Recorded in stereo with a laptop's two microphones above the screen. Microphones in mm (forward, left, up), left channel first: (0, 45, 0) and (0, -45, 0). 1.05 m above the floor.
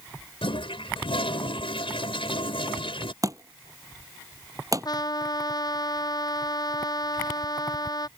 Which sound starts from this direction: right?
A thud, at 3.2 s.